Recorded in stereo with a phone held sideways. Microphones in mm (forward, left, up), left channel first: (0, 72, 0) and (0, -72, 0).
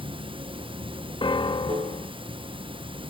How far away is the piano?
About 1.0 m.